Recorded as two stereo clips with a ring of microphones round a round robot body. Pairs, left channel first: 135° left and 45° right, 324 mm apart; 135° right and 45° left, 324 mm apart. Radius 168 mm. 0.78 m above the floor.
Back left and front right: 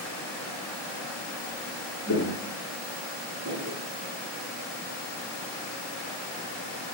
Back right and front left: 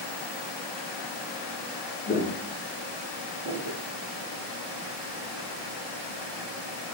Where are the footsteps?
165° left, 0.8 m; by 3.8 s 5° left, 1.6 m.